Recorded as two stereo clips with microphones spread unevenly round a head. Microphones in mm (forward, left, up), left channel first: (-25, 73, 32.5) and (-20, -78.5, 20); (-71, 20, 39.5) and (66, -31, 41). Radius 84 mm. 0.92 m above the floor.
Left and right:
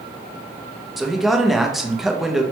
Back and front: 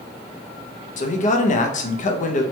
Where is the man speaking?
175° right, 0.5 m.